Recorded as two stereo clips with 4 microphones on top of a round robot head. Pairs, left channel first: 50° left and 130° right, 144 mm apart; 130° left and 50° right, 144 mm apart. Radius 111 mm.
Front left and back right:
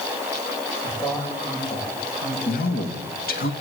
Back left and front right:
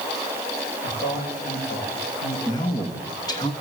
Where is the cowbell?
I don't hear a cowbell.